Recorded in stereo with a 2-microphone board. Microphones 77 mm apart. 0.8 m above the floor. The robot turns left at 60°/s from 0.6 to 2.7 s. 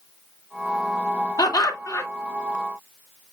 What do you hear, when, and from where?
1.4 s laughter: 90° left, 1.6 m; by 2.1 s 45° left, 1.6 m